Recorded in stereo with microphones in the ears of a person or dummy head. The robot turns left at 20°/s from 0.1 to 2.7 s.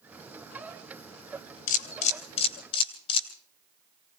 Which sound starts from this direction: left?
A camera shutter, at 1.7 s.